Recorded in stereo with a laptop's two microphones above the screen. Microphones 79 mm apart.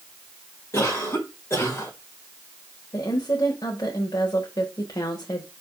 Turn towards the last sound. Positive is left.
turn(degrees=60)  # may be behind; listen again after turning